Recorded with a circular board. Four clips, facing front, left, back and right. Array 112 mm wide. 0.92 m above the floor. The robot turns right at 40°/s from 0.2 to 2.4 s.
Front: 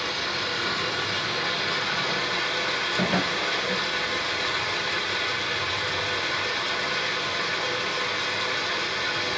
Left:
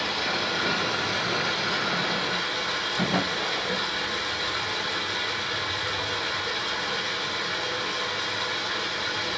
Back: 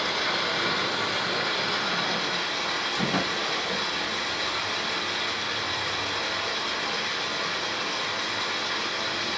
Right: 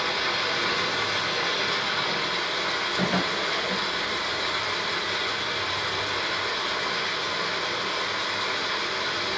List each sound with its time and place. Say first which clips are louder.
0.0 s running water: right 1 dB, back 2 dB; 120° right, 2.5 m; by 9.4 s 35° right, 2.5 m
3.0 s a drawer: even, front 2 dB; 25° right, 2.5 m